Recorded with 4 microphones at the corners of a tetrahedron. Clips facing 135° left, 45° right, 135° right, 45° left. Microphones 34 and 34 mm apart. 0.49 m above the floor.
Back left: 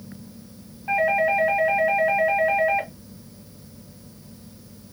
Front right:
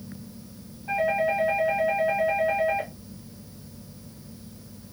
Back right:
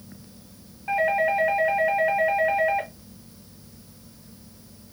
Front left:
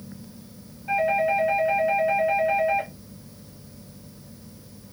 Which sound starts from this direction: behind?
A doorbell, at 0.9 s.